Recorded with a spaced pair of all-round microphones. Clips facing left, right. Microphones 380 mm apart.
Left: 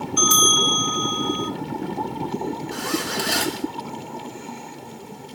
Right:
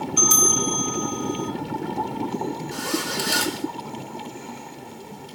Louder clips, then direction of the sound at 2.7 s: Left 1 dB; 70° left (ahead or behind).